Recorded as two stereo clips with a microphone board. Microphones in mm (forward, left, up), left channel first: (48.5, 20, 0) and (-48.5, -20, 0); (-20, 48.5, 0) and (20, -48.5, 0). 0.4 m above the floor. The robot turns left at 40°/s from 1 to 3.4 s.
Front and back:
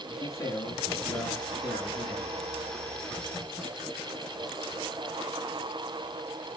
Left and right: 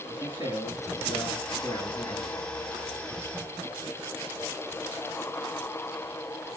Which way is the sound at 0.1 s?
80° left.